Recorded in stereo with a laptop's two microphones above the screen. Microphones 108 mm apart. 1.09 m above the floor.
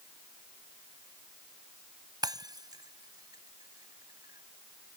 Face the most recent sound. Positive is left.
turn(degrees=-40)  # may be behind; listen again after turning